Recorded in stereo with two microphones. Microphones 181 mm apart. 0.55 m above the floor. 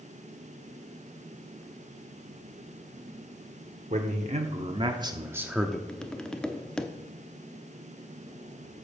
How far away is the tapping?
About 0.7 m.